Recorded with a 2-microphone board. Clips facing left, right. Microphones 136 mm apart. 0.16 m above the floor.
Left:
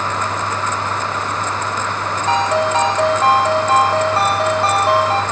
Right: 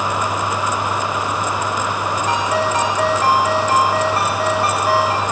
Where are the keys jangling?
I don't hear keys jangling.